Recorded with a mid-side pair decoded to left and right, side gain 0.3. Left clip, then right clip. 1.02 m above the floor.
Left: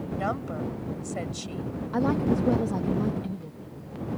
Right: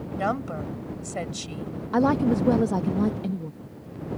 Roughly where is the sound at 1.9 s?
Ahead right.